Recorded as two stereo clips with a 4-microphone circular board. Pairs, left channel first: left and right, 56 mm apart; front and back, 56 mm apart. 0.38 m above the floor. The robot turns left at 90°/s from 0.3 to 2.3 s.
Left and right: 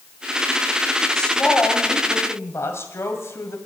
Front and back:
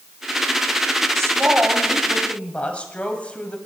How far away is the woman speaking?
About 2 m.